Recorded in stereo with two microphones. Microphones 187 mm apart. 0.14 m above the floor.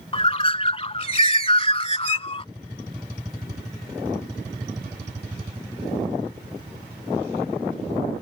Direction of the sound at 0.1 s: 35° left (ahead or behind).